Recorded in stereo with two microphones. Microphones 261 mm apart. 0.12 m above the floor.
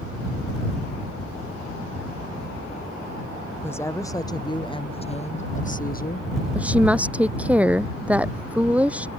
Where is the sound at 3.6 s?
10° left (ahead or behind); by 6.3 s 35° left (ahead or behind).